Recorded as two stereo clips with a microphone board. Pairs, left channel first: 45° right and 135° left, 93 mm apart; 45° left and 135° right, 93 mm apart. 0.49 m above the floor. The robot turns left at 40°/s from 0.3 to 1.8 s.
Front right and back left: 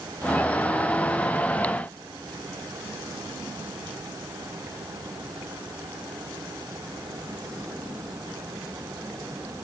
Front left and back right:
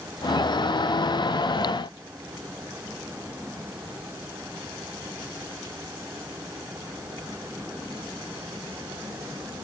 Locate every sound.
Only background noise.